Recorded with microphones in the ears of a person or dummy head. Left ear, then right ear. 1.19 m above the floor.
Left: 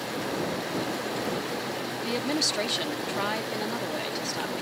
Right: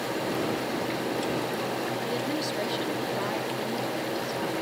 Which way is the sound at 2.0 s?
30° left (ahead or behind).